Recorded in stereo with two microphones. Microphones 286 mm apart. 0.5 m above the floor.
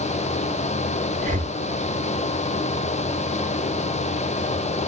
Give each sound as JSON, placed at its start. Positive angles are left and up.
{"t": 1.2, "sound": "breathing", "side_deg": -30, "distance_m": 0.6}